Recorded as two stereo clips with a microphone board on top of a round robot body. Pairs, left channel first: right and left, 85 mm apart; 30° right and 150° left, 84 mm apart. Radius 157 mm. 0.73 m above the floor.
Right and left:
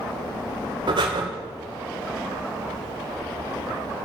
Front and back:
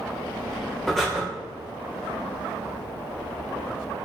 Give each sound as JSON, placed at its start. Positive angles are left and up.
{"t": 0.9, "sound": "breathing", "azimuth_deg": 60, "distance_m": 3.0}